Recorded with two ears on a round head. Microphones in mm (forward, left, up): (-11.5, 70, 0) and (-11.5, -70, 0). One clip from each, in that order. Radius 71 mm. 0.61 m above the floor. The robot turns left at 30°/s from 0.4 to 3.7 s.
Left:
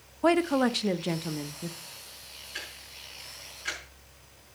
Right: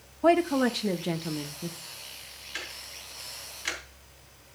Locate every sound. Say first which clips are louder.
0.2 s a woman speaking: right 1 dB; 40° left, 0.6 m; by 1.8 s straight ahead, 0.6 m
2.5 s ticking: right 3 dB; 40° right (ahead or behind), 3.5 m; by 4.5 s 75° right (ahead or behind), 3.5 m